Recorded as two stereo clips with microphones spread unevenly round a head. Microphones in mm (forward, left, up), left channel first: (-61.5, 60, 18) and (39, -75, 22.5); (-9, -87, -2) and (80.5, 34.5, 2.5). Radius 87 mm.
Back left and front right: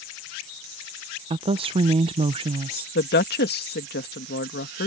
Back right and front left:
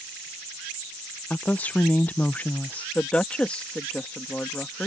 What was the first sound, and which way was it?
A woman speaking, 60° right.